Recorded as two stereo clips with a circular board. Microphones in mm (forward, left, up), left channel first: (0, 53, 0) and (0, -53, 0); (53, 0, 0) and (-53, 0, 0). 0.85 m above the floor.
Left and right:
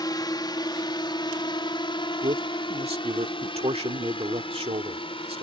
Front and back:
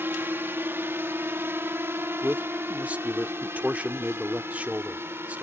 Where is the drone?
120° left; by 5.4 s 115° left.